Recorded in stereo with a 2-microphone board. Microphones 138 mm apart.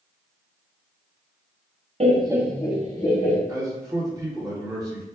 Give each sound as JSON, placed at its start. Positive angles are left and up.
{"t": 2.0, "sound": "laughter", "side_deg": -45, "distance_m": 0.9}
{"t": 3.5, "sound": "a man speaking", "side_deg": -25, "distance_m": 1.2}